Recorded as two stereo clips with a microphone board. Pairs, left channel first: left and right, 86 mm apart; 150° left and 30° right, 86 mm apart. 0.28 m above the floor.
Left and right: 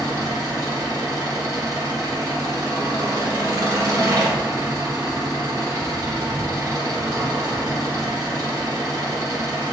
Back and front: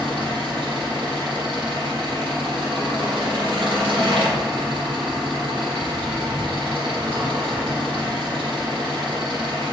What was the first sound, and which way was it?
An engine running, 40° right.